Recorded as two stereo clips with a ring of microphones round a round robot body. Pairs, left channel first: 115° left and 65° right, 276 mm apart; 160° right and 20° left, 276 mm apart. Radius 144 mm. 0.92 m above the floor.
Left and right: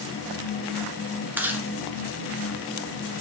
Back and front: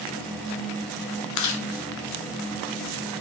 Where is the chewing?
150° right, 1.0 m.